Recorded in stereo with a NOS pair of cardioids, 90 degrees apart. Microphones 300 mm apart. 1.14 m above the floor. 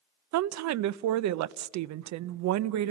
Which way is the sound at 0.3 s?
70° right.